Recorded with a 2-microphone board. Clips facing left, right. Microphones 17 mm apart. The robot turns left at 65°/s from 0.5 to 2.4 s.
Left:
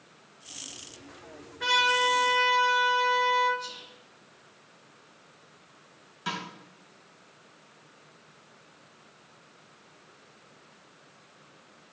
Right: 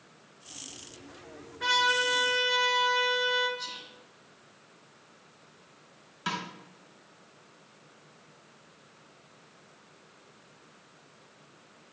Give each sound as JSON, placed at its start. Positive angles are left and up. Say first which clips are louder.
{"t": 1.6, "sound": "a trumpet", "louder": "left 2 dB", "azimuth_deg": 10, "distance_m": 3.5}
{"t": 3.6, "sound": "whispering", "louder": "even", "side_deg": -50, "distance_m": 4.0}
{"t": 6.3, "sound": "a snare drum", "louder": "right 1 dB", "side_deg": -15, "distance_m": 2.5}